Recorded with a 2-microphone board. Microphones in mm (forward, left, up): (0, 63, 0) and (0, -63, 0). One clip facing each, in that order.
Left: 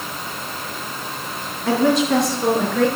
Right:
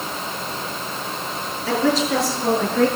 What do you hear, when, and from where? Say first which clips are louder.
1.7 s a woman speaking: left 3 dB; 60° left (ahead or behind), 4 m; by 2.9 s 75° left (ahead or behind), 5 m